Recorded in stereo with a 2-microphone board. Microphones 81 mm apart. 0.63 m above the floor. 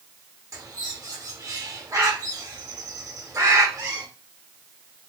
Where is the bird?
40° right (ahead or behind), 0.8 m.